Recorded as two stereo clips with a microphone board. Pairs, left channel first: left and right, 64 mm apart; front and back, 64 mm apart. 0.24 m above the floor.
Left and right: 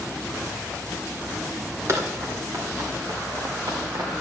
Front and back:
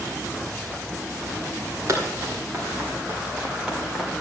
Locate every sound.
1.9 s running footsteps: 135° right, 3.5 m; by 4.1 s 95° right, 3 m